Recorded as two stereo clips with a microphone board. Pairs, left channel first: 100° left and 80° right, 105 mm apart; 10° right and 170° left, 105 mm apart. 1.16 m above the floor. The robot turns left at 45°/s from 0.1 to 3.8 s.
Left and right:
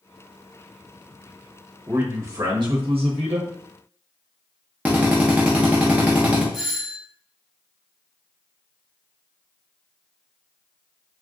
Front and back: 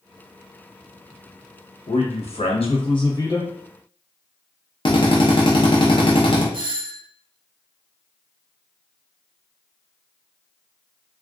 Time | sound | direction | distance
1.9 | a man speaking | straight ahead | 1.0 m
4.8 | a drill | 5° right | 0.8 m
6.5 | a doorbell | 165° right | 0.6 m